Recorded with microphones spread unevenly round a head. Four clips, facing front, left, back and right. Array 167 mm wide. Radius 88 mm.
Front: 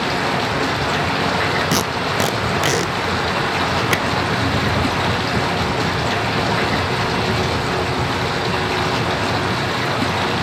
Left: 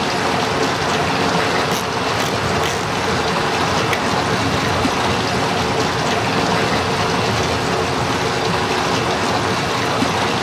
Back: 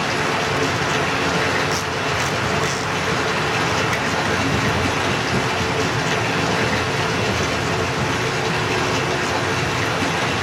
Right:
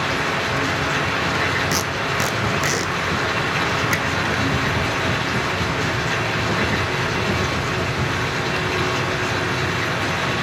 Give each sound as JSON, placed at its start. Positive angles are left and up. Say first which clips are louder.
{"t": 0.0, "sound": "running water", "louder": "left 4 dB, front 1 dB", "azimuth_deg": 80, "distance_m": 2.0}
{"t": 1.7, "sound": "tape being pulled", "louder": "left 4 dB, front 3 dB", "azimuth_deg": -5, "distance_m": 0.6}